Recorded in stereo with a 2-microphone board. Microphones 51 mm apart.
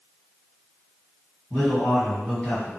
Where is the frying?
No frying in this recording.